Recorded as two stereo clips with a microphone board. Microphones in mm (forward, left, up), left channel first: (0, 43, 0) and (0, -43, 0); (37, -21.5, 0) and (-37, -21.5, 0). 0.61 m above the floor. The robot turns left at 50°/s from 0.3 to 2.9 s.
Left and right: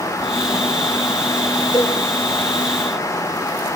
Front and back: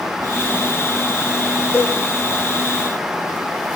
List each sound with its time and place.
1.7 s a cowbell: 55° left, 1.3 m; by 1.9 s 45° left, 1.3 m